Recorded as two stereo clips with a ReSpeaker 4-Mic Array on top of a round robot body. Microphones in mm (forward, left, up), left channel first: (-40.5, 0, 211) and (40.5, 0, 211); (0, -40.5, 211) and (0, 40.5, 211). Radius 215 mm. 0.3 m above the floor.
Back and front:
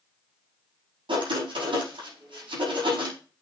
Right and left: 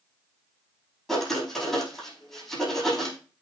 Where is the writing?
5° right, 6 m.